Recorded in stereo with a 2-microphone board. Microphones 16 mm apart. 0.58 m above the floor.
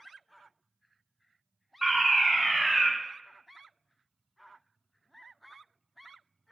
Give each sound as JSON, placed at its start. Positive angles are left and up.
{"t": 1.8, "sound": "a fire alarm", "side_deg": -30, "distance_m": 3.0}